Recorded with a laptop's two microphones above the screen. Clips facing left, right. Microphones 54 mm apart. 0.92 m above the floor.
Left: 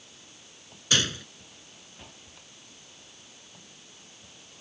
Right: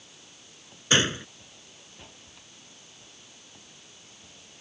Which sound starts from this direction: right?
A gunshot, at 0.9 s.